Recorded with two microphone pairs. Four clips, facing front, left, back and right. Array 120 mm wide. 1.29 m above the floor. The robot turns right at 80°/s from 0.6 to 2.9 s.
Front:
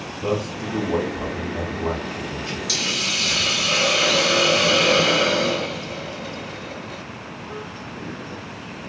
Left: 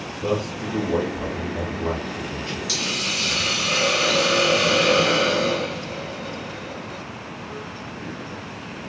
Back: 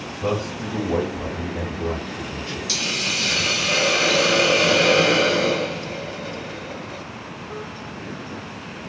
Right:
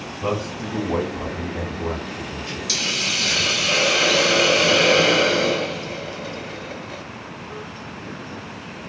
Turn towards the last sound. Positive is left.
turn(degrees=-100)